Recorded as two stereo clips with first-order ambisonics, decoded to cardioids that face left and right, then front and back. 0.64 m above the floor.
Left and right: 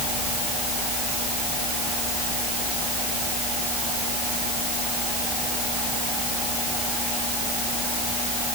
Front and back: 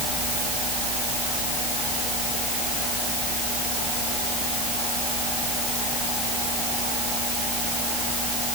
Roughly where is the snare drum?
No snare drum in this recording.